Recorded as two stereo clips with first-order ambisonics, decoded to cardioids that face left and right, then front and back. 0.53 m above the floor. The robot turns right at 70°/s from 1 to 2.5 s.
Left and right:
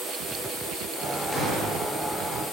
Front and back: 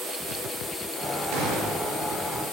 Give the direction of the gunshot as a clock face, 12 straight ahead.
6 o'clock.